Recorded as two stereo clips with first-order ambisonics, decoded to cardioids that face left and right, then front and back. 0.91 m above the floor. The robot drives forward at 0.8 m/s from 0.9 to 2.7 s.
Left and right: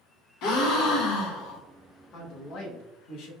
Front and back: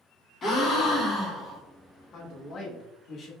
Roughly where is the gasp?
Ahead left.